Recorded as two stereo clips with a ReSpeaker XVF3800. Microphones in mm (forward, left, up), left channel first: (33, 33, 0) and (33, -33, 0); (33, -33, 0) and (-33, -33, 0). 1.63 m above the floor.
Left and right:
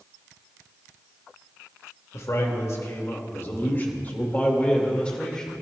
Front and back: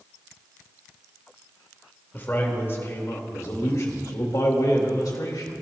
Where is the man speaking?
55° left, 2.5 m; by 5.6 s 10° left, 2.5 m.